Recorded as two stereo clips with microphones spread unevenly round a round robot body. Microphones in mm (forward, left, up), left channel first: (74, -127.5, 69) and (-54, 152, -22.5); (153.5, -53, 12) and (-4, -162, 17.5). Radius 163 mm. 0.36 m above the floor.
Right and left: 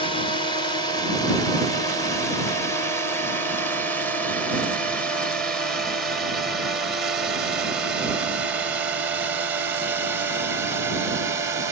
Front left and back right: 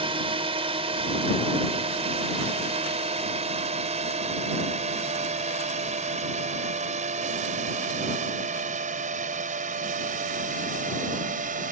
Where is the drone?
155° right; by 11.7 s 175° left.